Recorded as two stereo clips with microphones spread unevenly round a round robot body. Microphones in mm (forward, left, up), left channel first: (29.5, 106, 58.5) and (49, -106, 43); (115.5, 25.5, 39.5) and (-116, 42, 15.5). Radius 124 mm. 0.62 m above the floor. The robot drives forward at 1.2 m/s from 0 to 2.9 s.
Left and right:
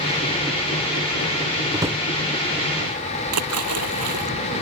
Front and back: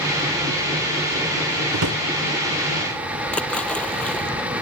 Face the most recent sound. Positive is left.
turn(degrees=-90)